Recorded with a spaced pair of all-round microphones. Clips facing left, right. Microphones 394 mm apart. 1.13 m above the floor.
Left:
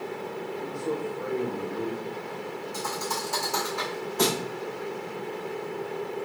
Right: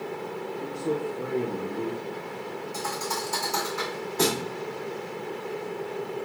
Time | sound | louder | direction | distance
0.6 | a man speaking | right 3 dB | 45° right (ahead or behind) | 0.7 m
2.7 | a thud | even | 30° right (ahead or behind) | 2.5 m